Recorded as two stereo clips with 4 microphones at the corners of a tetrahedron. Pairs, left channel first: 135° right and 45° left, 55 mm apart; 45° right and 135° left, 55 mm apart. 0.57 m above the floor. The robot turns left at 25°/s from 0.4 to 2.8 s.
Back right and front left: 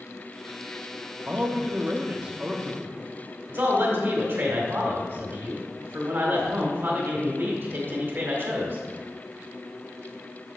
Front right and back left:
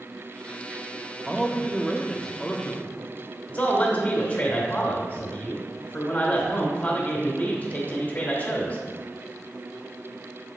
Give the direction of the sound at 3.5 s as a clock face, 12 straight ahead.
12 o'clock.